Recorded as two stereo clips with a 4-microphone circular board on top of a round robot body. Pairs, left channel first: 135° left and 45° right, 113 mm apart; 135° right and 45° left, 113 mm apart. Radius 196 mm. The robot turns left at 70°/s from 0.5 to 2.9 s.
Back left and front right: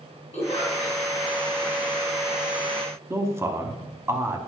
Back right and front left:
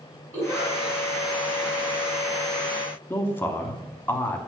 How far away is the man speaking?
About 1.3 m.